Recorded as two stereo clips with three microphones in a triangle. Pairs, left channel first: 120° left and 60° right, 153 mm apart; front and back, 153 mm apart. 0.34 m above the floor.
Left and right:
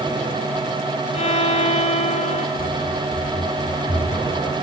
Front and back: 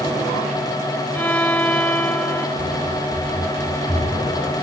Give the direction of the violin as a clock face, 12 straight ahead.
9 o'clock.